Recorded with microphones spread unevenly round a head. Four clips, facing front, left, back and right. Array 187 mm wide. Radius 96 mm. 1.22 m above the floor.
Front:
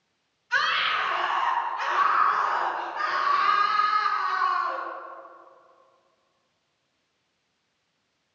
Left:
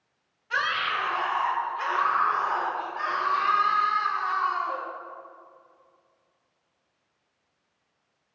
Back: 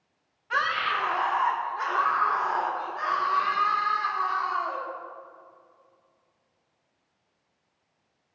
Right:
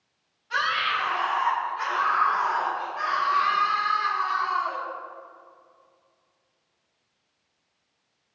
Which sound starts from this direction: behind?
A scream, at 0.5 s.